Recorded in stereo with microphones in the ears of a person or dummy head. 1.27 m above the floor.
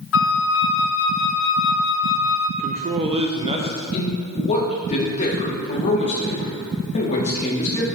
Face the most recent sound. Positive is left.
turn(degrees=40)  # may be behind; listen again after turning